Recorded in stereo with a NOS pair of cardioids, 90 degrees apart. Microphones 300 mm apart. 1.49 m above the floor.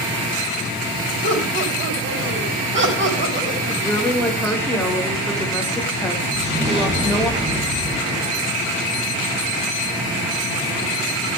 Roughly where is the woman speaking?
Ahead.